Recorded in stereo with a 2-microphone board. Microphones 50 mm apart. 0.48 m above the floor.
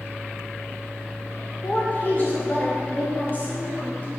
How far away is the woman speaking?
About 1.2 m.